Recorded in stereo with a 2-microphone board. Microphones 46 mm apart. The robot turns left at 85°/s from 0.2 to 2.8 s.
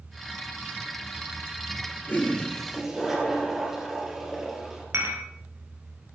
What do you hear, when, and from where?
2.1 s a toilet flushing: 55° left, 4.5 m; by 4.8 s 5° right, 4.5 m
4.9 s dishes clattering: 70° right (ahead or behind), 2.5 m